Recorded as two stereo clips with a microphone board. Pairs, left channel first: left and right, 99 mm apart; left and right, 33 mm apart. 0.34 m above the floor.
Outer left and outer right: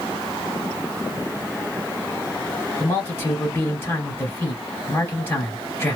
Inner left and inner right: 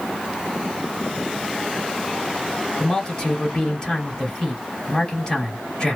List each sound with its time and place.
2.8 s a man speaking: 25° left (ahead or behind), 1.6 m